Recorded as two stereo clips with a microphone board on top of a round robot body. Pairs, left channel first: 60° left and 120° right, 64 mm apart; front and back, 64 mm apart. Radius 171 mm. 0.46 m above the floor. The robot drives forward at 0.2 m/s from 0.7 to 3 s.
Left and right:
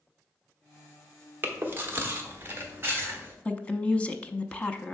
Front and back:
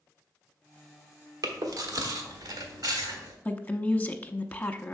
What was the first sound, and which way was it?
Chewing, 175° right.